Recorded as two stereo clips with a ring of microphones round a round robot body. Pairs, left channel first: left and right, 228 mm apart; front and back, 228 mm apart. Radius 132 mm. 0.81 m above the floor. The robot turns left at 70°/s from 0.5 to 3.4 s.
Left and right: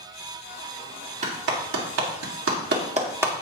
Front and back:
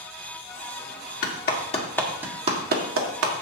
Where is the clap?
30° right, 1.8 m; by 3.3 s 175° right, 1.8 m.